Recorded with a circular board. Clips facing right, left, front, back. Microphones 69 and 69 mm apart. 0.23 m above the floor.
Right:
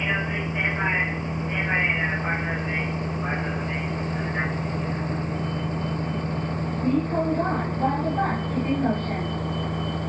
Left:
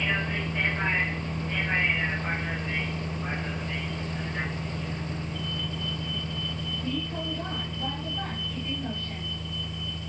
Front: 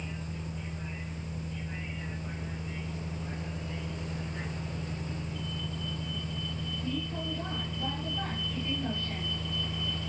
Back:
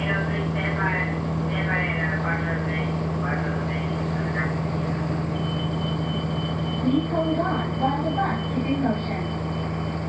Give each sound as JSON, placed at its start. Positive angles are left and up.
{"t": 0.0, "sound": "a vehicle", "azimuth_deg": -165}